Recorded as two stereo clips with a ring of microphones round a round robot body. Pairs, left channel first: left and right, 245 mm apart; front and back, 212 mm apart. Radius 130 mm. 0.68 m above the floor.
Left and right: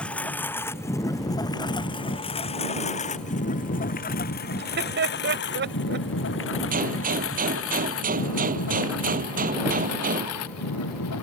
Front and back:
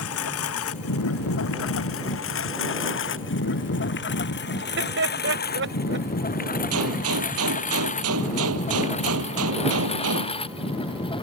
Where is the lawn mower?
5° left; by 11.2 s 65° left.